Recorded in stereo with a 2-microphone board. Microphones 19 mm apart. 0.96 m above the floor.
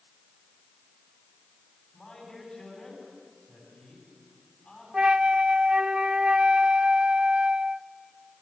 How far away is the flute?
About 0.5 m.